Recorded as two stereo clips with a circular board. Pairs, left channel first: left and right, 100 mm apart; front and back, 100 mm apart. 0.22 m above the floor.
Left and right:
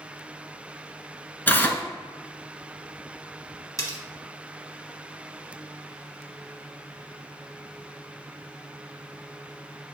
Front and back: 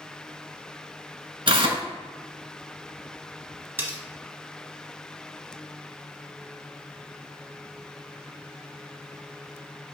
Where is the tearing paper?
160° left, 0.5 m.